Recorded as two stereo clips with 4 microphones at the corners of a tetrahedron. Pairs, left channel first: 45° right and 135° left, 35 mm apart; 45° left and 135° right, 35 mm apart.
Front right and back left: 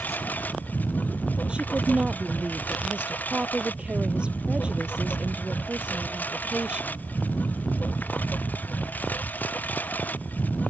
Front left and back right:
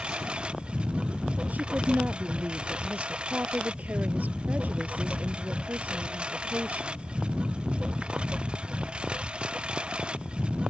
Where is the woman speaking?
170° right.